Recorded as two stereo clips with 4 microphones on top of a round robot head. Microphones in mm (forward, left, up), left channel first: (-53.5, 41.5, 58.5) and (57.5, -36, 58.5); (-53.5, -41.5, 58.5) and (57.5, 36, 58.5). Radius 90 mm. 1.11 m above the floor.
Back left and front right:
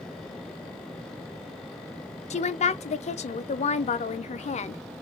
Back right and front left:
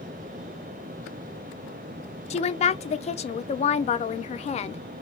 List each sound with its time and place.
2.3 s a woman speaking: straight behind, 0.6 m